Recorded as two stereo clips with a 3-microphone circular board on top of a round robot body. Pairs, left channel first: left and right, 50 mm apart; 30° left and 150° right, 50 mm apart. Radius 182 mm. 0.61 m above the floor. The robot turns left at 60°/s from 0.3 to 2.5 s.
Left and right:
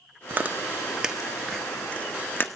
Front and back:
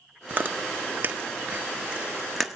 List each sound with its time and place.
0.3 s chewing: 115° right, 1.4 m; by 2.5 s 115° left, 1.4 m